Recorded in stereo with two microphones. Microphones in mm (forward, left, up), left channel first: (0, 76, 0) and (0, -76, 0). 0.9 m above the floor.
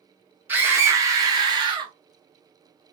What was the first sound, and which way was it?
A scream, 10° right (ahead or behind).